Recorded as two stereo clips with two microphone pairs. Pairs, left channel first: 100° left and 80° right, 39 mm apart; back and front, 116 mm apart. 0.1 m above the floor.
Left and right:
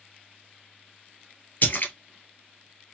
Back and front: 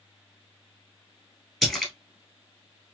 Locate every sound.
1.6 s a splash: 100° left, 1.2 m